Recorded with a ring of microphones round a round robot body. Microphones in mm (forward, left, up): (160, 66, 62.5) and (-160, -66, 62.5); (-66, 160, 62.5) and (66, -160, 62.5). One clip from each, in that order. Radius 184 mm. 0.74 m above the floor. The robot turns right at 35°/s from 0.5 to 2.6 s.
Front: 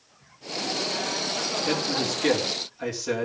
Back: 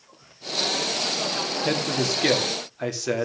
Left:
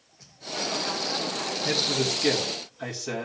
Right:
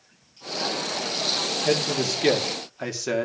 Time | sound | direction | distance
1.6 | a man speaking | 135° right | 2.5 m